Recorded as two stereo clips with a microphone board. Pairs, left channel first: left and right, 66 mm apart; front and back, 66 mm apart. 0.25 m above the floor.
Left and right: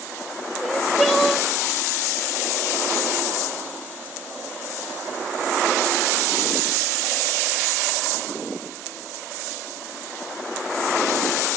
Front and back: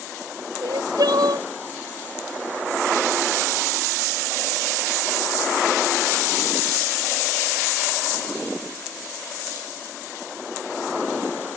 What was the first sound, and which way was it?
Crying, straight behind.